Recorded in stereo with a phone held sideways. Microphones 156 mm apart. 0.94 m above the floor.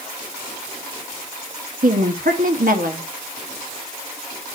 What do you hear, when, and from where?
1.8 s a woman speaking: 65° right (ahead or behind), 1.2 m